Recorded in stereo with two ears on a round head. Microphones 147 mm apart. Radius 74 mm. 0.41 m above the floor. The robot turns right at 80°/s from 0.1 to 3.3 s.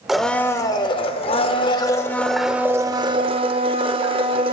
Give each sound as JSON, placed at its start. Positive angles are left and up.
{"t": 0.1, "sound": "a blender", "azimuth_deg": -5, "distance_m": 0.7}